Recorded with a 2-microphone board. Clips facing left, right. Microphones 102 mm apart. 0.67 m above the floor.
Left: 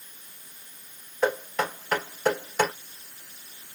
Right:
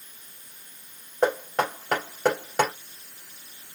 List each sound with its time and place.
1.2 s knocking: 70° right (ahead or behind), 3 m